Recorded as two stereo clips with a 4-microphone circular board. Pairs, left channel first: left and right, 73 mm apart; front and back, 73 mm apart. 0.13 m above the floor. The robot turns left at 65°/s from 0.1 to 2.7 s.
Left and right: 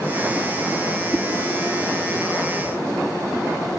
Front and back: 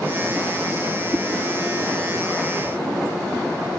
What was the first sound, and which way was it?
A whoosh, 135° right.